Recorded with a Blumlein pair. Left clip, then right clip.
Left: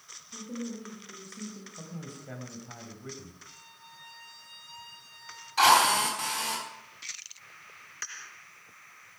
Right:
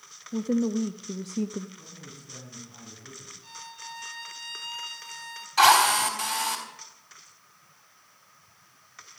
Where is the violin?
55° right, 1.6 m.